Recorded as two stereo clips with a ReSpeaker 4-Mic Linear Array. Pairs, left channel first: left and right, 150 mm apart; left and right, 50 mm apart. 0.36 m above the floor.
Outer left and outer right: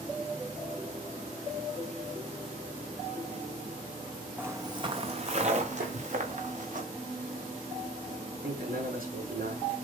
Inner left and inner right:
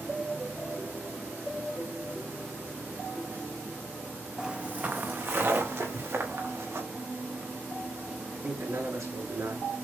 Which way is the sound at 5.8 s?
75° right (ahead or behind).